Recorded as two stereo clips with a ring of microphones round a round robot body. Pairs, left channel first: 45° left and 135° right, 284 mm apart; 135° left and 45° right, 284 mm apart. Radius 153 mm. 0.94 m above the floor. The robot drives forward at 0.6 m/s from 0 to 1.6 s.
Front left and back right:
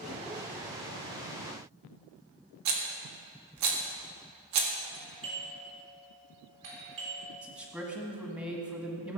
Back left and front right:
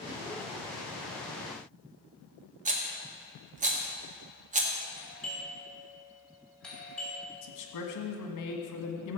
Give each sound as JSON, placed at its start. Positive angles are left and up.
{"t": 2.6, "sound": "a rattle", "azimuth_deg": -110, "distance_m": 1.8}
{"t": 4.9, "sound": "a doorbell", "azimuth_deg": -140, "distance_m": 4.0}
{"t": 7.4, "sound": "a man speaking", "azimuth_deg": 145, "distance_m": 1.6}